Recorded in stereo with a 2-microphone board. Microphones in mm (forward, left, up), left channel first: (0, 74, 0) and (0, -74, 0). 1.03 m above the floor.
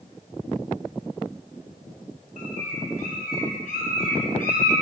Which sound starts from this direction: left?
A bird, at 2.4 s.